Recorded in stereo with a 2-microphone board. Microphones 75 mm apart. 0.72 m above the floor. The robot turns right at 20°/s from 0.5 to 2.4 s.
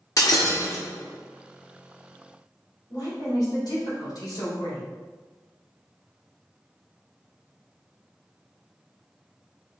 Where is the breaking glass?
50° left (ahead or behind), 0.9 m; by 0.8 s 45° left (ahead or behind), 0.9 m.